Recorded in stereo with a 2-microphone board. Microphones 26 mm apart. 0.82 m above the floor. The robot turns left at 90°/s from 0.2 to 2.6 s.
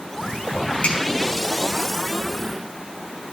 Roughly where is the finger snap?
Left.